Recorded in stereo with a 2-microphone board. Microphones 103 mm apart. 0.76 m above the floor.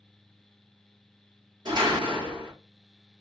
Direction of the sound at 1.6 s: 45° right (ahead or behind).